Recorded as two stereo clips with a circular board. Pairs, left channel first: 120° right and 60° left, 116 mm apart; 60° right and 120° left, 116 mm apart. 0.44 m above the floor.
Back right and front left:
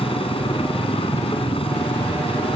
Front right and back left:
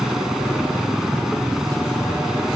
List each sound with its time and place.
0.0 s a helicopter: 155° right